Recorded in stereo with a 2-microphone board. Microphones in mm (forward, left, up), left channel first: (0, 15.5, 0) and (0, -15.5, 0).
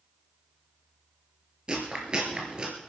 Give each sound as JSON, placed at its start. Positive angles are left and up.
{"t": 1.7, "sound": "chewing", "side_deg": -25, "distance_m": 3.5}